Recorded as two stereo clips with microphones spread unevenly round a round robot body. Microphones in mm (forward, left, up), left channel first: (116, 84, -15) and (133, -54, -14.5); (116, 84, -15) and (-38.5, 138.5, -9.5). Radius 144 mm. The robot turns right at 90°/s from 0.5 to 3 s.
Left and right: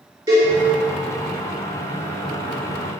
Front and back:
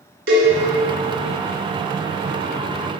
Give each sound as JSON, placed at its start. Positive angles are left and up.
{"t": 0.3, "sound": "a cowbell", "azimuth_deg": -160, "distance_m": 2.5}